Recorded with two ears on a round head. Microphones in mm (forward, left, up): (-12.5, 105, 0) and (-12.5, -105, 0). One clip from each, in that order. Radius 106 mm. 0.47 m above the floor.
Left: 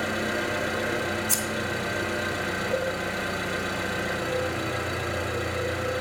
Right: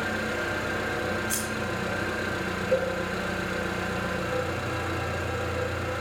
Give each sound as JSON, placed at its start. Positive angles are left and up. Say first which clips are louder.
{"t": 0.0, "sound": "an engine running", "louder": "left 1 dB", "side_deg": 15, "distance_m": 1.2}
{"t": 1.3, "sound": "scissors", "louder": "left 3 dB", "side_deg": 45, "distance_m": 2.0}
{"t": 2.7, "sound": "a cowbell", "louder": "right 4 dB", "side_deg": -70, "distance_m": 3.5}